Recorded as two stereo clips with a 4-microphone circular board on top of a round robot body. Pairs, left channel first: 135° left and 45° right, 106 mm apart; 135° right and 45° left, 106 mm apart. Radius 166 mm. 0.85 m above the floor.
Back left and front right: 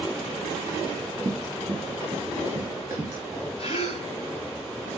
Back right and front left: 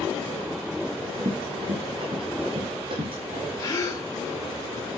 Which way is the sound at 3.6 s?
165° left.